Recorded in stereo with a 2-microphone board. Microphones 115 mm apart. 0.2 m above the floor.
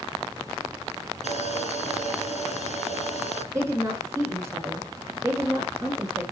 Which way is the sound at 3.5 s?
25° right (ahead or behind).